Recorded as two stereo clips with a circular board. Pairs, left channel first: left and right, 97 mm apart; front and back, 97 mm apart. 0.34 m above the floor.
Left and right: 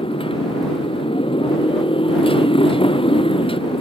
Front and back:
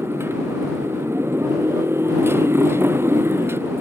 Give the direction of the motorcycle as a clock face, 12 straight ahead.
8 o'clock.